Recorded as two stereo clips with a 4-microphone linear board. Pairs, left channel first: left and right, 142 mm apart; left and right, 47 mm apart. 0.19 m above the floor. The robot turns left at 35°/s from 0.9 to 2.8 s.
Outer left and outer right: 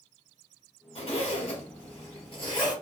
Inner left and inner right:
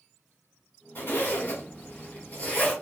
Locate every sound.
0.9 s a zipper: 110° left, 1.3 m; by 2.7 s 50° left, 1.3 m